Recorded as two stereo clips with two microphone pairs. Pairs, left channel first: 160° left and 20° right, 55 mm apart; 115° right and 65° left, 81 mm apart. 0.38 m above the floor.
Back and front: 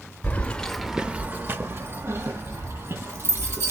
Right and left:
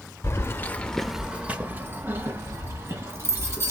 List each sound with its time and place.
0.2 s keys jangling: 155° right, 0.8 m; by 3.7 s 15° left, 2.5 m